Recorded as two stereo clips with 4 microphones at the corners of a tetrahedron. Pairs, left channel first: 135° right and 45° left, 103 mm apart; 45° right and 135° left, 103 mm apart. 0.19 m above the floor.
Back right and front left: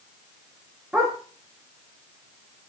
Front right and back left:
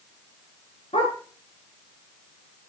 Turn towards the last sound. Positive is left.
turn(degrees=-35)